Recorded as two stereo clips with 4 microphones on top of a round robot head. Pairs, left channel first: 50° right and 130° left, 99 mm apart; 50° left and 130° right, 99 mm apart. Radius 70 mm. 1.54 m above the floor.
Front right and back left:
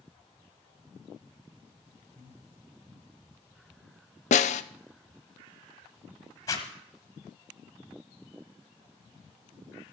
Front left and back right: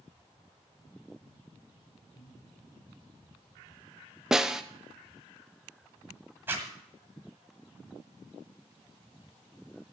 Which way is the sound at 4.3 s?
45° right.